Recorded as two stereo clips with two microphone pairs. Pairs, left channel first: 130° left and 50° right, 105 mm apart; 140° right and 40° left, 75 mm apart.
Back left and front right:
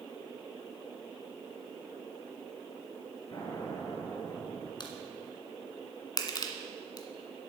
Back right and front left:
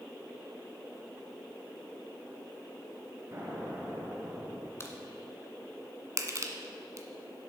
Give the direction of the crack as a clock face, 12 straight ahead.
6 o'clock.